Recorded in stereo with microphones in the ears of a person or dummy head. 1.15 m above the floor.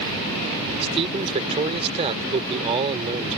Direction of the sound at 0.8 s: 30° right (ahead or behind).